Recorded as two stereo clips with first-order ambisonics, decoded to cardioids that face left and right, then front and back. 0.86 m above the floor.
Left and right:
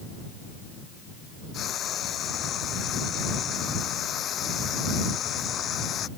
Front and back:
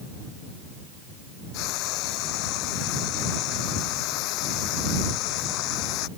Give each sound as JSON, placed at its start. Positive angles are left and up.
{"t": 1.5, "sound": "frying", "azimuth_deg": 30}